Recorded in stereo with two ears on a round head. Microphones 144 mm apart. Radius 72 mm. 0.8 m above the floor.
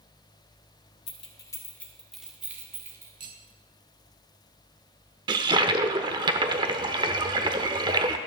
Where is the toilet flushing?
30° right (ahead or behind), 0.9 m.